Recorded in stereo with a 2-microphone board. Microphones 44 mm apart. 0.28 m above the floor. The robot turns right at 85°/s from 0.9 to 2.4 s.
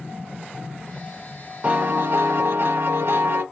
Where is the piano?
145° right, 0.8 m; by 3.4 s 80° right, 0.8 m.